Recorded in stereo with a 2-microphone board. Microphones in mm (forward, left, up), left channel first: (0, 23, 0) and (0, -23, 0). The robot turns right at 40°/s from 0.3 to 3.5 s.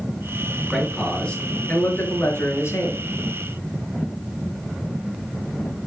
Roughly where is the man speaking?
Ahead.